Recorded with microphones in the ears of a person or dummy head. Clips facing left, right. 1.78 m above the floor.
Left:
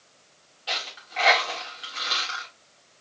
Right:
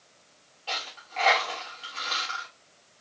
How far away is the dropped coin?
About 1.5 m.